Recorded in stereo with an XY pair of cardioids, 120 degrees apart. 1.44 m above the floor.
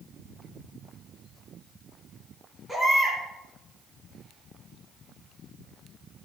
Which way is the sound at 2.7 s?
Straight ahead.